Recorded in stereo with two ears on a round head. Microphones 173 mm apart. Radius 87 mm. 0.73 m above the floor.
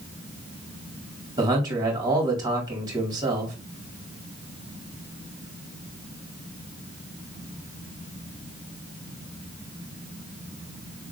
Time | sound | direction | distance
1.4 | a man speaking | 20° right (ahead or behind) | 1.9 m